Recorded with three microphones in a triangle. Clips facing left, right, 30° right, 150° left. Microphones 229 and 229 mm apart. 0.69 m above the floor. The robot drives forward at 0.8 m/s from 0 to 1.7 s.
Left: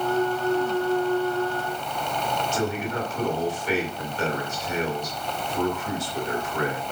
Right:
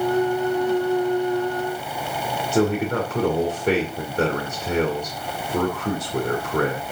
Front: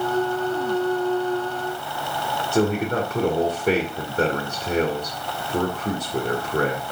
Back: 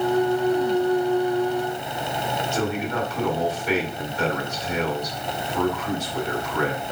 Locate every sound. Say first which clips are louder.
2.5 s a man speaking: right 10 dB, front 7 dB; 65° right, 2 m